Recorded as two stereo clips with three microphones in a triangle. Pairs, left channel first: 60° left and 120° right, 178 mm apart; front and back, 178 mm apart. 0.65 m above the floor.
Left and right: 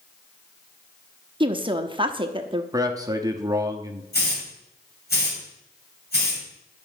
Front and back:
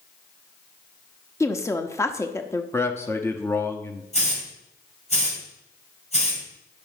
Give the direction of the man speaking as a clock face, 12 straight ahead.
2 o'clock.